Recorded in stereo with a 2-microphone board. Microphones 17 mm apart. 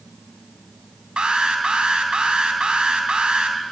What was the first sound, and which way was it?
An alarm, 60° right (ahead or behind).